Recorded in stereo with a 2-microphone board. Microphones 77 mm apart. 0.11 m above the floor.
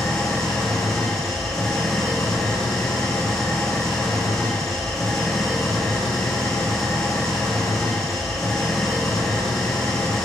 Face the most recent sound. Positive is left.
turn(degrees=5)  # may be behind; listen again after turning